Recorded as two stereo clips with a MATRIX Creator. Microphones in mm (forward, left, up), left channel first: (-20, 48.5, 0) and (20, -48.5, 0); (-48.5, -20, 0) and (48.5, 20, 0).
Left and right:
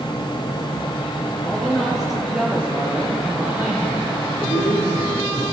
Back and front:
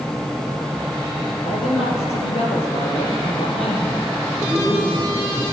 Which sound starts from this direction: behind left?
A man speaking, at 4.4 s.